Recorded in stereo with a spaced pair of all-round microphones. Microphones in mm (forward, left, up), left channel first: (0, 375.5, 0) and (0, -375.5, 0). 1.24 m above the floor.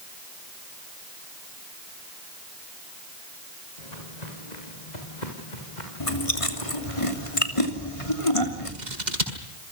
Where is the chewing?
45° left (ahead or behind), 3 m.